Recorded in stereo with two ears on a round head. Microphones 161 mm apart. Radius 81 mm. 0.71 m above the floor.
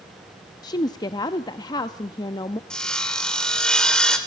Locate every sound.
0.6 s a woman speaking: 25° left (ahead or behind), 0.5 m
2.7 s sawing: 5° left (ahead or behind), 2.5 m